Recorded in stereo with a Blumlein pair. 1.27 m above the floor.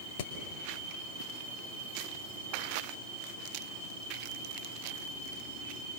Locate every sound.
0.2 s hammering: 50° left, 3 m